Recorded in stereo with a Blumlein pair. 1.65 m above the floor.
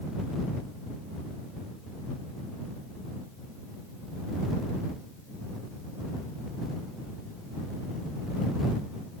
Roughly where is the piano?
I don't hear a piano.